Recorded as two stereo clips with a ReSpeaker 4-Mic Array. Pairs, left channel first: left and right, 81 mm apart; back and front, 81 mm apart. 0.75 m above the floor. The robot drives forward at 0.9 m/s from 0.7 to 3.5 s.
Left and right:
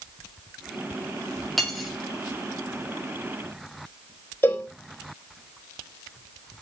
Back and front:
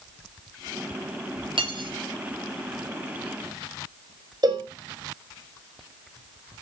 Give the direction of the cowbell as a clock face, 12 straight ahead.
11 o'clock.